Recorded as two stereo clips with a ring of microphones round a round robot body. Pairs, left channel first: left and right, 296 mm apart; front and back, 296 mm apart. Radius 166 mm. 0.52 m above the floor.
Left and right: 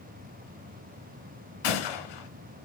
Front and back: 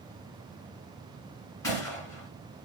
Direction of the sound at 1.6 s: 80° left.